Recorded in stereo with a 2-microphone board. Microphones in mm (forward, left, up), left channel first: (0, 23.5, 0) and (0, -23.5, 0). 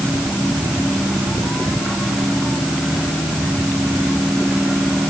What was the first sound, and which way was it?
Only background noise.